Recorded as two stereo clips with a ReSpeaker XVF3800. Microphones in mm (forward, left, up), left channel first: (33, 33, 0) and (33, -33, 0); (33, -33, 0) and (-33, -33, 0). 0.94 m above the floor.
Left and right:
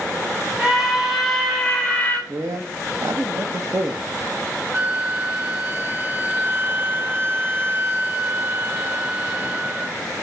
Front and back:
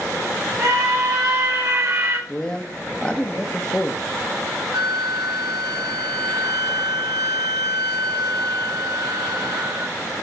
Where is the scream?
165° right, 1.3 m; by 2.2 s 145° left, 1.2 m.